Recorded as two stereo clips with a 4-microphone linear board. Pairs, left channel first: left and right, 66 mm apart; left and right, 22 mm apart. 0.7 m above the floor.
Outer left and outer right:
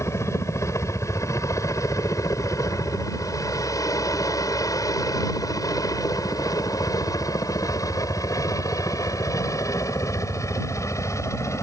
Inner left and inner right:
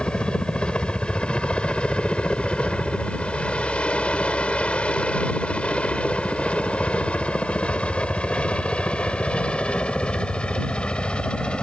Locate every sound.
0.0 s a helicopter: 50° left (ahead or behind); by 11.6 s 45° left (ahead or behind)